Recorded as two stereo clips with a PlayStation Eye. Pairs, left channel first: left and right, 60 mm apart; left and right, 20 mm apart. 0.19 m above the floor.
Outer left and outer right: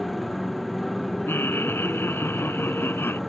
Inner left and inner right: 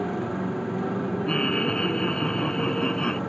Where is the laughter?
40° left (ahead or behind).